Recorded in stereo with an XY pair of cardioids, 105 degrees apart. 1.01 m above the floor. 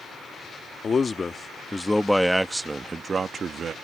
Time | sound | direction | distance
0.8 | a man speaking | 40° left | ?